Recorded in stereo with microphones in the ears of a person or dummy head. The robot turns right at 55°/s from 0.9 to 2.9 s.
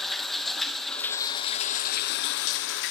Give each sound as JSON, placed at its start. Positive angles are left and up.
{"t": 0.0, "sound": "running water", "azimuth_deg": 0, "distance_m": 0.8}